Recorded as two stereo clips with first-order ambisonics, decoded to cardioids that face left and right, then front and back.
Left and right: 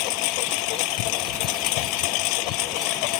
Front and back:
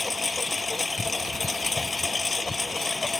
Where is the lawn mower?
80° left.